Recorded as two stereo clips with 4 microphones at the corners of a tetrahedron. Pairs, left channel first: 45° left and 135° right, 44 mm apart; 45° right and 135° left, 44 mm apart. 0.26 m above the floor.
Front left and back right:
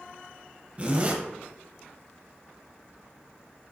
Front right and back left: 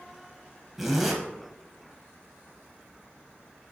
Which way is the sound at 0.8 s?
145° right.